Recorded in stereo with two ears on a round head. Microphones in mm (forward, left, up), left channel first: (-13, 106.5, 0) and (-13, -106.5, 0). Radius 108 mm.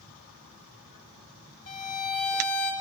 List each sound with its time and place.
1.7 s a violin: 30° left (ahead or behind), 1.8 m